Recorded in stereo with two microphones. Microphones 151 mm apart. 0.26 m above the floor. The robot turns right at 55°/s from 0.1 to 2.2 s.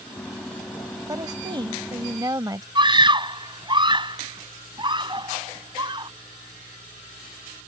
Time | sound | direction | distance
1.1 | a woman speaking | 25° right (ahead or behind) | ?
2.8 | a scream | 30° right (ahead or behind) | ?